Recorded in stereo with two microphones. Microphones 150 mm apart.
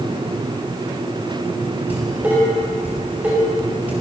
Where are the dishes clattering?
10° right (ahead or behind), 6 m.